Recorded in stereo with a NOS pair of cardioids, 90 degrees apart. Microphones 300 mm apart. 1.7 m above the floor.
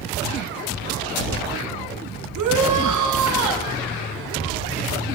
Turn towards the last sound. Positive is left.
turn(degrees=-70)